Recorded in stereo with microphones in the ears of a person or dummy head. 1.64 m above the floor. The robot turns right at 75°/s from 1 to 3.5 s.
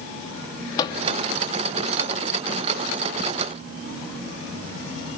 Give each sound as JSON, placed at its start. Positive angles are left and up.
{"t": 0.8, "sound": "a microwave", "side_deg": 25, "distance_m": 2.5}